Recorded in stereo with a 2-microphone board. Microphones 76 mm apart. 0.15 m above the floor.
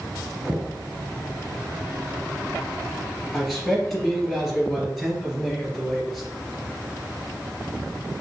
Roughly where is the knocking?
Centre.